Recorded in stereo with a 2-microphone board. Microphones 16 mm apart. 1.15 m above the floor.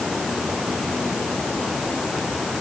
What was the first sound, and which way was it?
Only background noise.